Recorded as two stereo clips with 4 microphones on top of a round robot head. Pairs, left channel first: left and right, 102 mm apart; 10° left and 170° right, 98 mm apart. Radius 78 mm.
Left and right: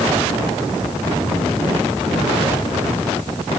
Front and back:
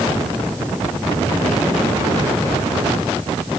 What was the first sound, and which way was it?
Only background noise.